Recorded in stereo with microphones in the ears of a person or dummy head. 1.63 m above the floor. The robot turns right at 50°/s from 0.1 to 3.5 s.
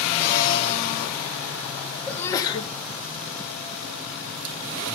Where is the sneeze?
5° left, 2 m; by 2.7 s 35° left, 2 m.